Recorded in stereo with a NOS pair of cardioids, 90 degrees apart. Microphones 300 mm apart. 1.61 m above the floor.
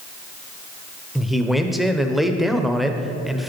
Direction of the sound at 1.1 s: Straight ahead.